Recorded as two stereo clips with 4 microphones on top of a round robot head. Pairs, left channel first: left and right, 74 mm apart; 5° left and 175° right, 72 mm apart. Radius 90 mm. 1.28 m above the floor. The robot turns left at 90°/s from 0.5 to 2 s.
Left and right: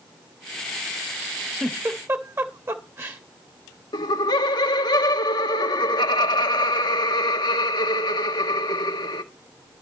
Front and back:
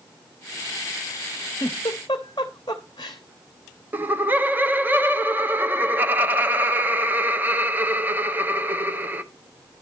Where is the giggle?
10° right, 0.8 m; by 3.2 s 45° right, 0.8 m.